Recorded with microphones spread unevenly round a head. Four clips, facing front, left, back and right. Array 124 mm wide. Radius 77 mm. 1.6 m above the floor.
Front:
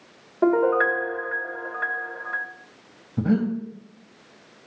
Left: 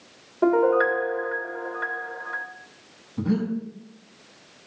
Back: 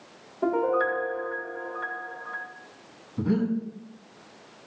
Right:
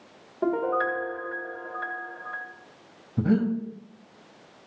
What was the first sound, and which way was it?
A piano, 30° left.